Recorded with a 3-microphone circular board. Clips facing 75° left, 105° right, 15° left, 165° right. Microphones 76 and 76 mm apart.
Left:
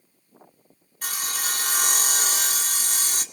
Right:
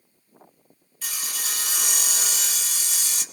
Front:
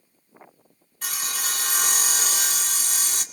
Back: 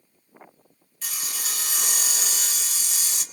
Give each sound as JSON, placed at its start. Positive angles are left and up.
{"t": 1.0, "sound": "sawing", "azimuth_deg": 45, "distance_m": 2.0}